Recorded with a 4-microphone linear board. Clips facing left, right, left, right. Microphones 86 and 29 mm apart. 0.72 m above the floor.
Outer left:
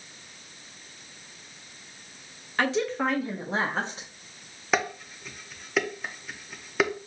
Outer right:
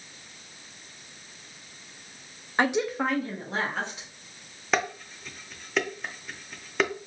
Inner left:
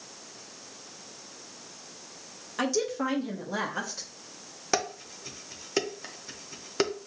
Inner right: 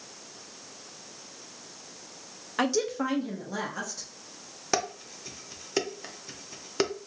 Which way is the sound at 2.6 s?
25° right (ahead or behind).